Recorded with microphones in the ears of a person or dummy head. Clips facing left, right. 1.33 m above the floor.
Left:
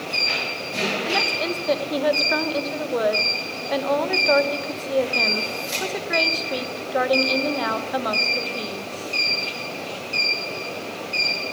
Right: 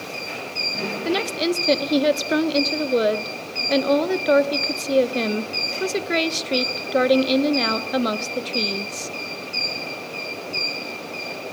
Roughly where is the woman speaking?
Right.